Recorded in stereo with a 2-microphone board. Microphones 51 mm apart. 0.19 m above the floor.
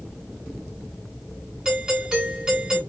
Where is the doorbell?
15° right (ahead or behind), 3 m.